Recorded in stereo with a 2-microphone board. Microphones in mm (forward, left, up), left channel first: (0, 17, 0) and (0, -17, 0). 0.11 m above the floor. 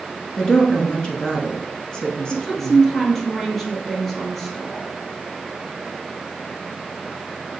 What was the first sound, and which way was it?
A woman speaking, 25° left (ahead or behind).